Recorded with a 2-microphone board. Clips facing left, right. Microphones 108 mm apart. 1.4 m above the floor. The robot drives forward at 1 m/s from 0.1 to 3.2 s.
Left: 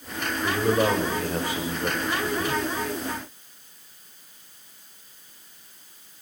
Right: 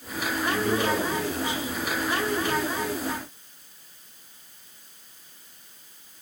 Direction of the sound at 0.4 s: 45° left (ahead or behind).